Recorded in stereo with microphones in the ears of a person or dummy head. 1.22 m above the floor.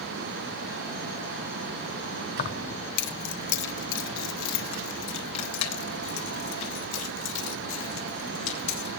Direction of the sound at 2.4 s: 40° left (ahead or behind).